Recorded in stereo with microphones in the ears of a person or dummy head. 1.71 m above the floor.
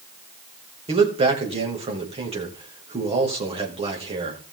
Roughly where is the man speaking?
Right.